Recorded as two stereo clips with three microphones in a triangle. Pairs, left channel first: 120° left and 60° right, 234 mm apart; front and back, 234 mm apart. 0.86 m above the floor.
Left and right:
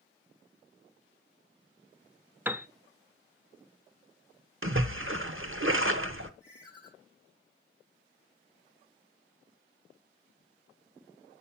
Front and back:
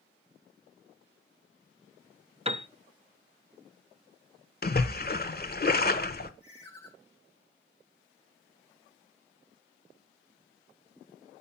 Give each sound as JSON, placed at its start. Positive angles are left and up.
{"t": 2.5, "sound": "a piano", "azimuth_deg": -140, "distance_m": 0.6}
{"t": 4.6, "sound": "a splash", "azimuth_deg": -40, "distance_m": 0.9}
{"t": 6.4, "sound": "a ringtone", "azimuth_deg": -65, "distance_m": 6.5}